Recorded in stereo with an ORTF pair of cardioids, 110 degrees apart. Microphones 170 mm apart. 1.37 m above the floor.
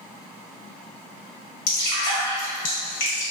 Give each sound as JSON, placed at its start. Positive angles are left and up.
{"t": 1.7, "sound": "dripping", "azimuth_deg": 60, "distance_m": 1.3}